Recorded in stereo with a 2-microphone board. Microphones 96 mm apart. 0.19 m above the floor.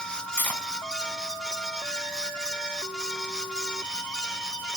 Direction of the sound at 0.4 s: 20° left (ahead or behind).